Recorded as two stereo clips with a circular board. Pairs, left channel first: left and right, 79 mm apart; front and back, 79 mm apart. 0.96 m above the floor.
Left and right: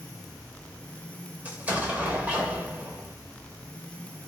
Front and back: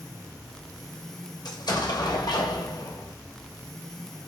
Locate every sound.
1.4 s an explosion: 20° right, 0.6 m